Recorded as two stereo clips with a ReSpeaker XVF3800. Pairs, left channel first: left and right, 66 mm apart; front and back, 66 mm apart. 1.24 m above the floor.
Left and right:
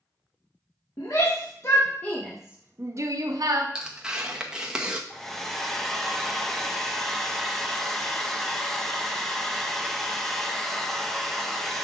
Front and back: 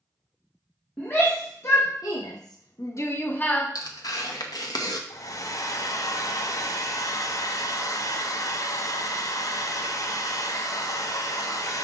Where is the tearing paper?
10° right, 0.8 m.